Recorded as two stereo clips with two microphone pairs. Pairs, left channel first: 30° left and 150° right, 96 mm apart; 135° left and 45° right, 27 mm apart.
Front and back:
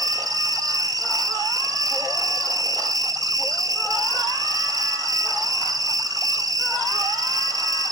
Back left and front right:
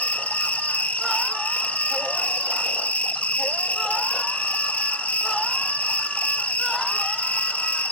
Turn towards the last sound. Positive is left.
turn(degrees=160)